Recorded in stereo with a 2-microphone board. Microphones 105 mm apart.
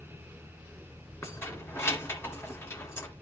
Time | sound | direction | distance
1.2 | keys jangling | 25° left (ahead or behind) | 2.0 m